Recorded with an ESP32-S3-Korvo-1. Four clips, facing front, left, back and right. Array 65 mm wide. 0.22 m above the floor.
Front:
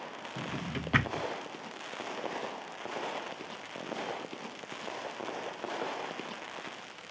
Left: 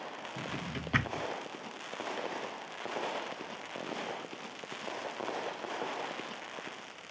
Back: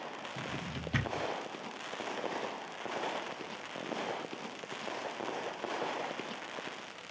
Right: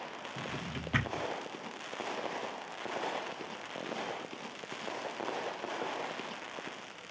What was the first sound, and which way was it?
A drawer, 20° left.